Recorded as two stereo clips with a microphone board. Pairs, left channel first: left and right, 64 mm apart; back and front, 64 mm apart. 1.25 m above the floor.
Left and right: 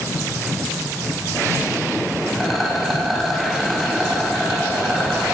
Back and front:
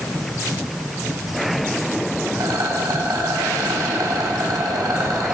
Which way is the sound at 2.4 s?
5° right.